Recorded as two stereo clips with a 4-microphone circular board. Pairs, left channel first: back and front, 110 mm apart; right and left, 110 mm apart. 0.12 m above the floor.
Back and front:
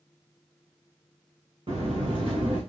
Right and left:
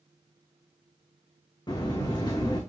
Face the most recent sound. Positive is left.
turn(degrees=-40)